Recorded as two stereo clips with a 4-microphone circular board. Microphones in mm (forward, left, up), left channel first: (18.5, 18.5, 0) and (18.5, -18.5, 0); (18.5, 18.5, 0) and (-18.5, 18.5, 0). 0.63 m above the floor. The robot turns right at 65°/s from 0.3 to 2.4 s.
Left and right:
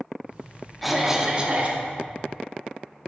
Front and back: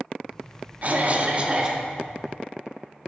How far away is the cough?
About 0.9 m.